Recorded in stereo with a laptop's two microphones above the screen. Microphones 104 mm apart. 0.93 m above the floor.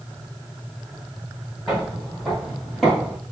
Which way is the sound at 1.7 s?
Centre (ahead or behind).